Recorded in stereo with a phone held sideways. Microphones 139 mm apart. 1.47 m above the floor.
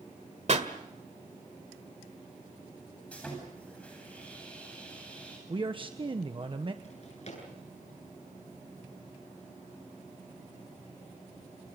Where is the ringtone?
I don't hear a ringtone.